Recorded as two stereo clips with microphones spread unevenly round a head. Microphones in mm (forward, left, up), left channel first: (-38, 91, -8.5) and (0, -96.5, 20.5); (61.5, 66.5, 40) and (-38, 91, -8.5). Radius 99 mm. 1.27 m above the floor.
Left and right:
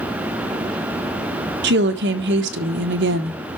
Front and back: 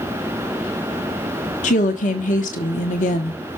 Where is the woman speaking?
40° right, 1.2 m.